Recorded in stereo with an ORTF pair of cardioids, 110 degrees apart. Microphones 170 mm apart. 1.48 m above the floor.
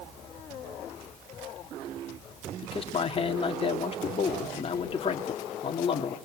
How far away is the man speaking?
About 3 m.